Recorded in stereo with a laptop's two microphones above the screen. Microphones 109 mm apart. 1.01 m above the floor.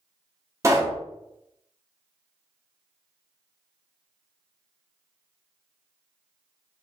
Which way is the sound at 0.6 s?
30° right (ahead or behind).